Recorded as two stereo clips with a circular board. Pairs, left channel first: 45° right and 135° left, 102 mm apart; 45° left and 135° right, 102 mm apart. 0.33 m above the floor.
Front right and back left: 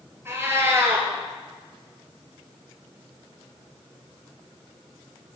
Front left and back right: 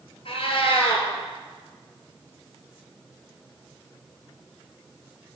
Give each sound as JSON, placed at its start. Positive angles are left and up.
{"t": 0.2, "sound": "a cat meowing", "azimuth_deg": 70, "distance_m": 2.0}